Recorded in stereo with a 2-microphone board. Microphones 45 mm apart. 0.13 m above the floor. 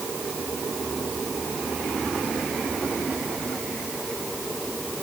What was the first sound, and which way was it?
Only background noise.